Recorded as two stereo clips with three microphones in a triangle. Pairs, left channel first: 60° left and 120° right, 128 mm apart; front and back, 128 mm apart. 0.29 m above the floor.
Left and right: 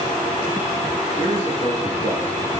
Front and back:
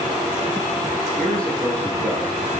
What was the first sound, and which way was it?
A man speaking, 80° left.